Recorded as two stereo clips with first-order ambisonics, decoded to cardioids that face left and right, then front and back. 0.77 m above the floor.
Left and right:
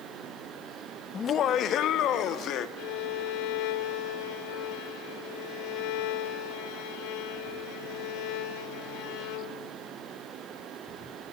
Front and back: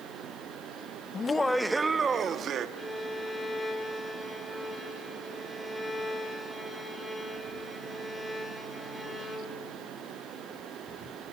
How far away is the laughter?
About 0.7 m.